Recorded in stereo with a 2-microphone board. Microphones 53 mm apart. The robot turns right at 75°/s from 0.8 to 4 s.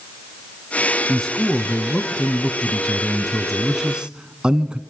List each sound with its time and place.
1.1 s a man speaking: 5° left (ahead or behind), 1.1 m; by 4.8 s 20° right (ahead or behind), 1.1 m